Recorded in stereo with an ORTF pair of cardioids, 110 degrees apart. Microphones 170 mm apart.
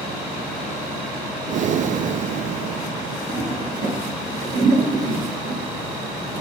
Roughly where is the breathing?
Ahead right.